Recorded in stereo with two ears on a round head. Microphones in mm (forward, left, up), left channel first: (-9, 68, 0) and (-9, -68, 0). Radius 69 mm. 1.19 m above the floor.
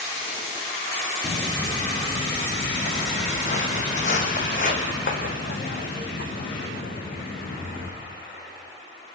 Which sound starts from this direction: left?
Footsteps, at 1.2 s.